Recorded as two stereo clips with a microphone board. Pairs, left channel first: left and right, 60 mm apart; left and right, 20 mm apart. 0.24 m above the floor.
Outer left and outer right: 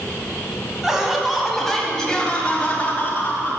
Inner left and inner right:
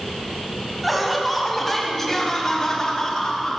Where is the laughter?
10° right (ahead or behind), 1.6 m; by 3.6 s 35° left (ahead or behind), 1.4 m.